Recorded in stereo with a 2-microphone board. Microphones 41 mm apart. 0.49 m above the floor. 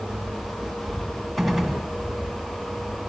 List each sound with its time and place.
0.0 s an insect: 80° left, 5.5 m
1.4 s a gunshot: 5° left (ahead or behind), 1.3 m